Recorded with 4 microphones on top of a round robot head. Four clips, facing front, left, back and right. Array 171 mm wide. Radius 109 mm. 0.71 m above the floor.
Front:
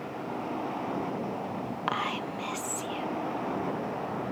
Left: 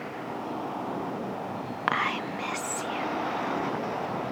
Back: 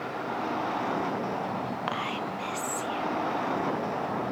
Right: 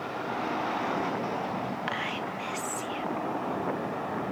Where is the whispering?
75° left, 1.2 m.